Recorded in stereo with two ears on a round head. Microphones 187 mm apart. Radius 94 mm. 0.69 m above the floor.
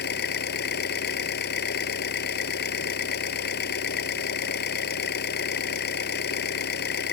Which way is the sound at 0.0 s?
55° left (ahead or behind).